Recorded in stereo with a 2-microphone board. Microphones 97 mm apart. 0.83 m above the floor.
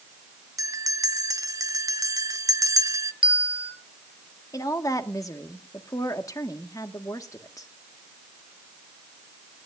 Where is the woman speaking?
35° left (ahead or behind), 1.4 m.